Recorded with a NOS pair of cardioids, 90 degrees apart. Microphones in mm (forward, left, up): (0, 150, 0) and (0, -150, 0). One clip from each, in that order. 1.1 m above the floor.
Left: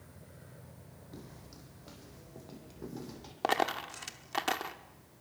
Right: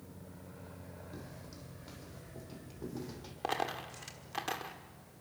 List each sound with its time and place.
1.1 s footsteps: 5° left, 3.5 m
3.4 s a dropped coin: 40° left, 1.4 m